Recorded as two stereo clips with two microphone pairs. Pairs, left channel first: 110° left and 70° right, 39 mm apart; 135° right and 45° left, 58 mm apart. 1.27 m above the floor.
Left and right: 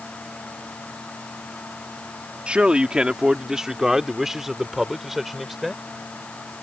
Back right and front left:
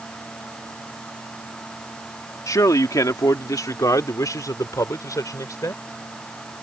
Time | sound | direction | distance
2.5 | a man speaking | 125° right | ?